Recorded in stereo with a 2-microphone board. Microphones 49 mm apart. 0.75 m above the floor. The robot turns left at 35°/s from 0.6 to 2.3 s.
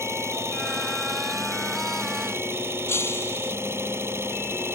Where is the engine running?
65° right; by 4.8 s 120° right.